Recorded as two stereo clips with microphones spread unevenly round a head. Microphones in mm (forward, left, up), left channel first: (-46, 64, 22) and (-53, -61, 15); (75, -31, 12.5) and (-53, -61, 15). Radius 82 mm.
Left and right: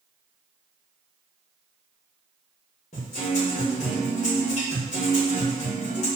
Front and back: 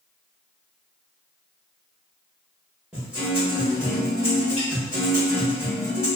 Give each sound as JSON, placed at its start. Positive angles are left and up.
{"t": 2.9, "sound": "a guitar", "azimuth_deg": 110, "distance_m": 1.6}